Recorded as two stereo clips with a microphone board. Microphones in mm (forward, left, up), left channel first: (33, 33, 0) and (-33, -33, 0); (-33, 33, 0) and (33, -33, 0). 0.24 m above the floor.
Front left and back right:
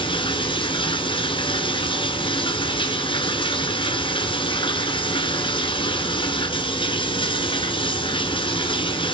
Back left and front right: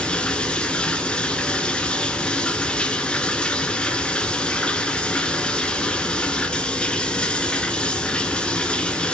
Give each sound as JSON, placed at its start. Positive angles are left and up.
{"t": 0.0, "sound": "running water", "azimuth_deg": 55, "distance_m": 1.3}